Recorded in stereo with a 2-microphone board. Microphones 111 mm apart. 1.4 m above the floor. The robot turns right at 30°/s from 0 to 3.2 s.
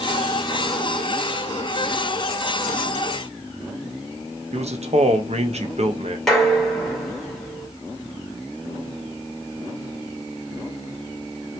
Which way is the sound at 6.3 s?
Centre (ahead or behind).